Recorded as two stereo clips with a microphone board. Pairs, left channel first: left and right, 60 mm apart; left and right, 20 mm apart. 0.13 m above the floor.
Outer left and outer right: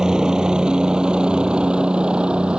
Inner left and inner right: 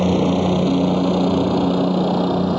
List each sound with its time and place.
0.0 s a helicopter: 10° right (ahead or behind); by 2.6 s 15° right (ahead or behind)